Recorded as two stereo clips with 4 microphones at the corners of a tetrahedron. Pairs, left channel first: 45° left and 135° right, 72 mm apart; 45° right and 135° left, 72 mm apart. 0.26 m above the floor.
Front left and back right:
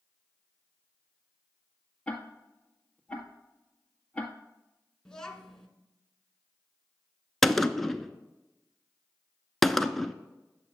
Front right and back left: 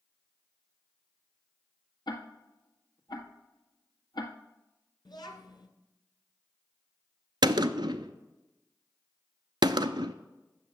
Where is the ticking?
30° right, 1.5 m.